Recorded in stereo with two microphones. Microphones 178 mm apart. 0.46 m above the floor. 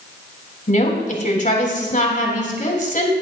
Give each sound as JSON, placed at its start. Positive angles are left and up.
{"t": 0.7, "sound": "a woman speaking", "side_deg": 45, "distance_m": 4.0}